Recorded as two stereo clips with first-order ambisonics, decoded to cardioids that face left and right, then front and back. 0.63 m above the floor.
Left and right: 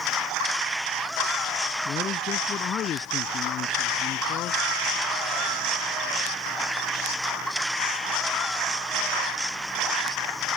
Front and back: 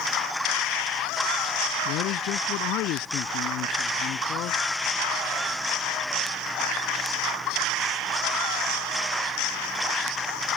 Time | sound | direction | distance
1.9 | a man speaking | 30° left | ?